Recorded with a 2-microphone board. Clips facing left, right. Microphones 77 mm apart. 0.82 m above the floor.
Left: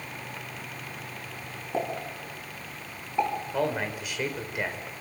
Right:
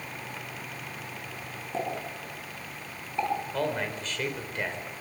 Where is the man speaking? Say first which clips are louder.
Left 2 dB; 10° left (ahead or behind), 3.5 m.